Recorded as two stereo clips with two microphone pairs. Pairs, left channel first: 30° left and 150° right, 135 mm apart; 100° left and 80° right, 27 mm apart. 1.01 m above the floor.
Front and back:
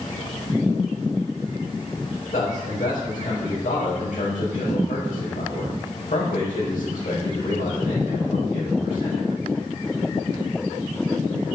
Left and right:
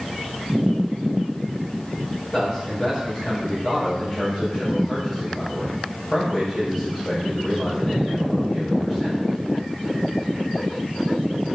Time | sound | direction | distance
2.3 | a man speaking | 35° left | 5 m